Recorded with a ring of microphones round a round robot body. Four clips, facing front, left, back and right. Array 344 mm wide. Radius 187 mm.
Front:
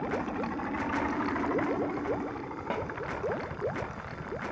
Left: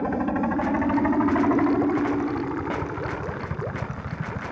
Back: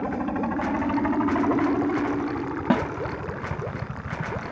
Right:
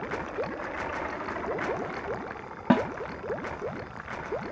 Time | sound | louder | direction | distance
0.0 | a helicopter | left 8 dB, back 6 dB | 115° left | ?
2.7 | a snare drum | right 5 dB, back 11 dB | 135° right | ?